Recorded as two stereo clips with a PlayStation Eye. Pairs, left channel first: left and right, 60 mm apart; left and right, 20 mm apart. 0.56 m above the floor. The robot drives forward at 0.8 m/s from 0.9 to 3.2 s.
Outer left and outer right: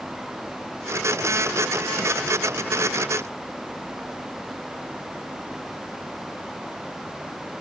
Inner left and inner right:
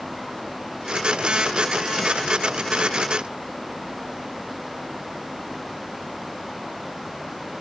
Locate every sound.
Only background noise.